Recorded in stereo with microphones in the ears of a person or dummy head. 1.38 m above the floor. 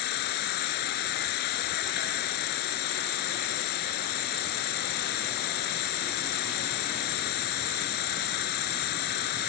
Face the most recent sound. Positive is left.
turn(degrees=55)  # may be behind; listen again after turning